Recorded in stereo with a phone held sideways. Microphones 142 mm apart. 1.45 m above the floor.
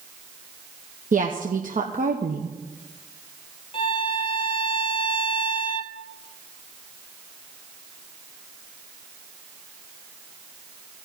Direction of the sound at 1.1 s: 70° right (ahead or behind).